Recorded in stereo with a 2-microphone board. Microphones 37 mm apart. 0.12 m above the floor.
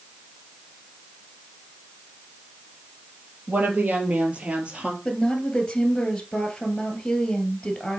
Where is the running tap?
No running tap in this recording.